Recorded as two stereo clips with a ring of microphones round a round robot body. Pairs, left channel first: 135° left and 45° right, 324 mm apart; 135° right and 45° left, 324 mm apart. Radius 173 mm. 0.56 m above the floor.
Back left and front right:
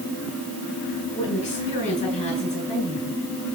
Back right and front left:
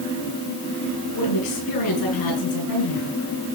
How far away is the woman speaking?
About 9 m.